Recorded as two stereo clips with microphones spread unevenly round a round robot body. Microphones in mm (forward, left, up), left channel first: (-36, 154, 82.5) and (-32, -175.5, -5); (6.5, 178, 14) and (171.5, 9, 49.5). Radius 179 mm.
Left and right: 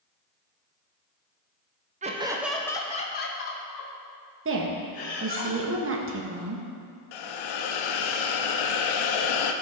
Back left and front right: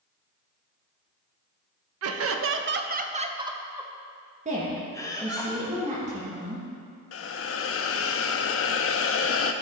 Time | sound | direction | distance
2.0 | laughter | 30° right | 0.8 m
4.5 | a woman speaking | 110° right | 1.3 m
7.1 | a hiss | 100° left | 0.6 m